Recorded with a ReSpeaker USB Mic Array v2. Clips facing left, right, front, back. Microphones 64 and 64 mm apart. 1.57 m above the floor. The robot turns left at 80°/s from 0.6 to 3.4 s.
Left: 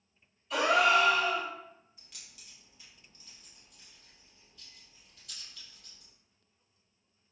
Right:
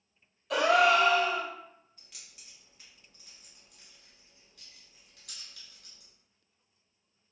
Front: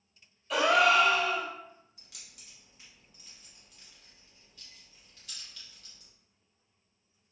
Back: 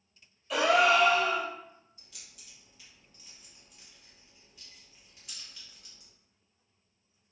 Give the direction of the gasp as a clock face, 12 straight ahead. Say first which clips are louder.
Right 2 dB, even; 3 o'clock.